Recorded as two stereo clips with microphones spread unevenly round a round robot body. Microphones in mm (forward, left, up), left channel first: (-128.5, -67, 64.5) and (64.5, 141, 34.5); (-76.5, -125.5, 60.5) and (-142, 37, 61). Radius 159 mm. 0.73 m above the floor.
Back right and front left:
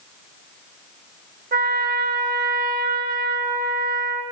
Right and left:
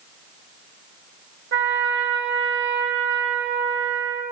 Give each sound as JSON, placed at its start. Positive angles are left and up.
{"t": 1.5, "sound": "a trumpet", "azimuth_deg": 105, "distance_m": 1.7}